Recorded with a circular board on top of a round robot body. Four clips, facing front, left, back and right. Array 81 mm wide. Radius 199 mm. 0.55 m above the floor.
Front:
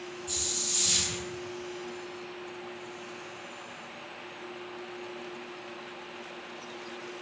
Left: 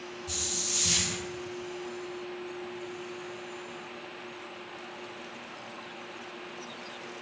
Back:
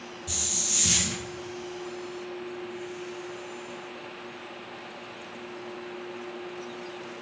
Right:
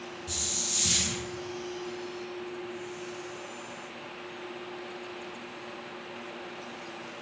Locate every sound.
0.3 s a hiss: 175° right, 3 m